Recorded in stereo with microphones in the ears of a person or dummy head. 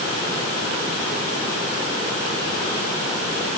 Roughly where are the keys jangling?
No keys jangling in this recording.